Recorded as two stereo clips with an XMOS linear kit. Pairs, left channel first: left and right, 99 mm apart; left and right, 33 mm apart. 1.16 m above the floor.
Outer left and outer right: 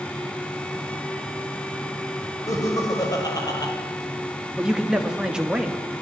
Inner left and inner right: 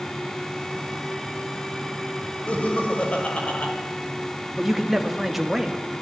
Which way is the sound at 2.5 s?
35° left (ahead or behind).